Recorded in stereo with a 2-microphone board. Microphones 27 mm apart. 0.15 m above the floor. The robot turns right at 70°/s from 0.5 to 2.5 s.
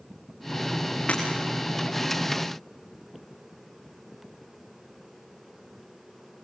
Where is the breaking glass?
40° left (ahead or behind), 6 m; by 1.2 s 50° left (ahead or behind), 6 m.